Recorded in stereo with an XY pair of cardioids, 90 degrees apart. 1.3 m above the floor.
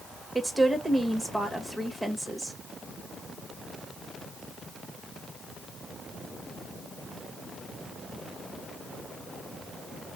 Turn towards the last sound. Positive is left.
turn(degrees=-5)